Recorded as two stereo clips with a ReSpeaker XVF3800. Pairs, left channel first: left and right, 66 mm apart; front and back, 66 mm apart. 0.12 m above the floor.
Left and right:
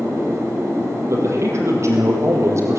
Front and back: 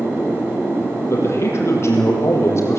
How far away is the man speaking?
About 4.5 m.